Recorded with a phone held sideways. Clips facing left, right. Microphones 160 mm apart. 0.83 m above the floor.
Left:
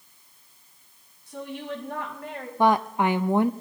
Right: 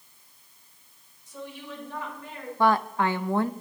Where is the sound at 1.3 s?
75° left (ahead or behind), 5.5 m.